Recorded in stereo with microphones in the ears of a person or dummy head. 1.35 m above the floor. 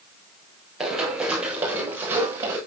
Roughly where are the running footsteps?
Centre.